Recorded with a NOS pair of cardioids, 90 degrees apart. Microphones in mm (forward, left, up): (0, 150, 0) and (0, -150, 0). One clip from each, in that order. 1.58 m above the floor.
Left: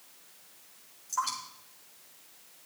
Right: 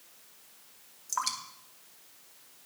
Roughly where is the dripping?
Ahead right.